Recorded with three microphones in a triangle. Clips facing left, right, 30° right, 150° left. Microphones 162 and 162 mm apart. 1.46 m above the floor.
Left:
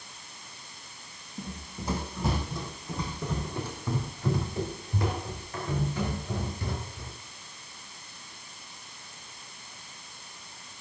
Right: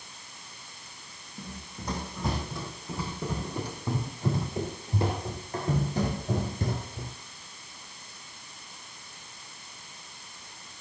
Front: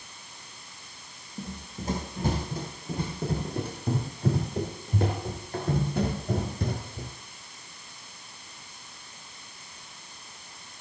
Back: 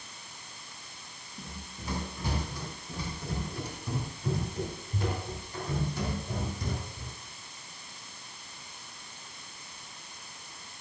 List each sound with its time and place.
1.4 s running footsteps: 10° left, 3 m; by 7.1 s 55° right, 3 m